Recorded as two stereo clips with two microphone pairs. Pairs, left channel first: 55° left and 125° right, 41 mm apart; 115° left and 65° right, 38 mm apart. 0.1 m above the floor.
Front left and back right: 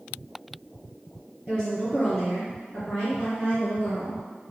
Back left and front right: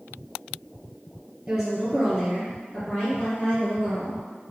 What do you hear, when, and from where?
1.5 s a woman speaking: 15° left, 1.8 m; by 4.2 s 130° left, 2.5 m